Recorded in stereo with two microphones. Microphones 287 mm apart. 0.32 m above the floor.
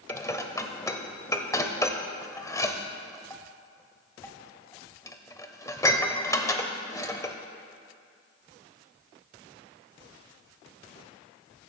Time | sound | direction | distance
0.1 | dishes clattering | 10° left (ahead or behind) | 0.7 m